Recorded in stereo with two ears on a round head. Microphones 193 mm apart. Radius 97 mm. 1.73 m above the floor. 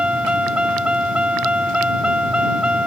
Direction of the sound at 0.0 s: 5° right (ahead or behind).